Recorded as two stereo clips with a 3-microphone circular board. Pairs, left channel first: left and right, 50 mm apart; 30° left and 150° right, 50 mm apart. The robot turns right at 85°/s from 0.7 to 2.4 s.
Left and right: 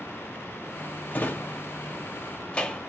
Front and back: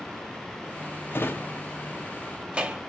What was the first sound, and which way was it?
A drawer, 45° left.